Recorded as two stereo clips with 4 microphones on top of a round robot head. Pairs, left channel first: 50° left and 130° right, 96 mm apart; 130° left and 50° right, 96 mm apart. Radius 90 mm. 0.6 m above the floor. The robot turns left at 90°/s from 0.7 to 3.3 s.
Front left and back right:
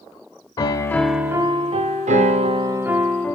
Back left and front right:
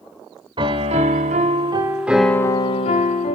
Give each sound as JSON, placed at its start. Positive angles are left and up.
{"t": 0.6, "sound": "a piano", "azimuth_deg": -5, "distance_m": 0.5}